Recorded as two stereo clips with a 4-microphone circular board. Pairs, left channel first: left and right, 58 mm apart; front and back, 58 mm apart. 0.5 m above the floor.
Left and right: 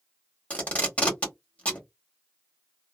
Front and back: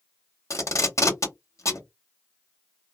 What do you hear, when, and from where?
0.5 s tape being pulled: 25° left, 1.4 m